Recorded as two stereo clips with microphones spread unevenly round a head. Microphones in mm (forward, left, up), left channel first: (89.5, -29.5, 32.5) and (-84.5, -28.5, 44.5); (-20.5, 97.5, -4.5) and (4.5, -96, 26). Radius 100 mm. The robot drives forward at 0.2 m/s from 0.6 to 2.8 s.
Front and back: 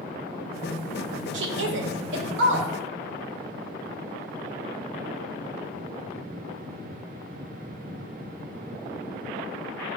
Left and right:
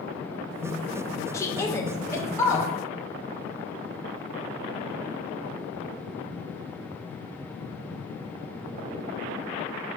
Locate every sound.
1.3 s a woman speaking: 170° left, 0.7 m; by 2.7 s 175° left, 1.0 m